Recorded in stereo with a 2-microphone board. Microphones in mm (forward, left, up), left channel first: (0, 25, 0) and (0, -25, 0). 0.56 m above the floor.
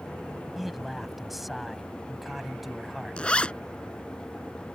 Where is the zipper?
25° left (ahead or behind).